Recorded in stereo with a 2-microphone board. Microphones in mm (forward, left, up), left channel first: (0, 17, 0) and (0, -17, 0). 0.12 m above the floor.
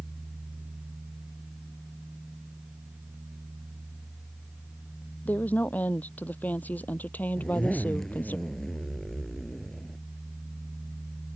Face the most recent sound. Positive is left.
turn(degrees=15)  # may be behind; listen again after turning